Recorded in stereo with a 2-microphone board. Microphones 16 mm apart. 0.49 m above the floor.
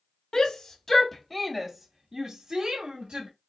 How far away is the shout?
About 1.0 m.